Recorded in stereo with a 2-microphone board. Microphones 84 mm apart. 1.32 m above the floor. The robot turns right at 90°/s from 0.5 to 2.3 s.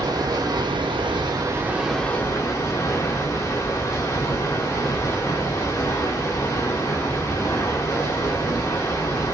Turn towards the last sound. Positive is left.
turn(degrees=35)